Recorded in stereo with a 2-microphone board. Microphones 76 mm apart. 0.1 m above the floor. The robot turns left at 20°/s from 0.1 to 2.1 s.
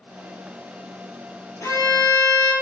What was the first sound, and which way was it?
A violin, 45° left (ahead or behind).